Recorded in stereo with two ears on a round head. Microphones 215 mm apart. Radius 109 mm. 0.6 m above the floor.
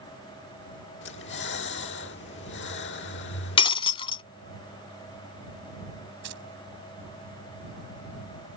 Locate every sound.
1.0 s breathing: 50° left (ahead or behind)
3.6 s breaking glass: 20° left (ahead or behind)
6.2 s keys jangling: 50° right (ahead or behind)